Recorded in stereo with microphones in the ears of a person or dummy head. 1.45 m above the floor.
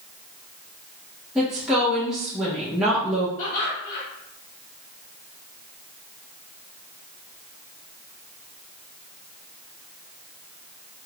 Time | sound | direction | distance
1.4 | a woman speaking | 5° right (ahead or behind) | 1.0 m
3.4 | laughter | 50° left (ahead or behind) | 1.4 m